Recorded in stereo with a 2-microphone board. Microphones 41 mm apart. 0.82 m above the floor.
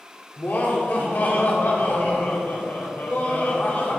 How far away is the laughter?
About 1.8 m.